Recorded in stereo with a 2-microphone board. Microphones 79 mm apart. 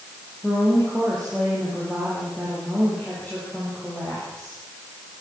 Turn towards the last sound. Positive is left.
turn(degrees=5)  # may be behind; listen again after turning